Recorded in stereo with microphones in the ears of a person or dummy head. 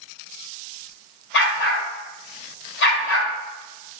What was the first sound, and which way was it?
A dog barking, 65° left (ahead or behind).